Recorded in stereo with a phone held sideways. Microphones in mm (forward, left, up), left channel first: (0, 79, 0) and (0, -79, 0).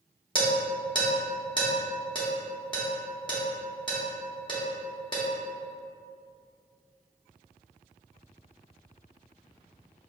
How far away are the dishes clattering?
About 1.1 m.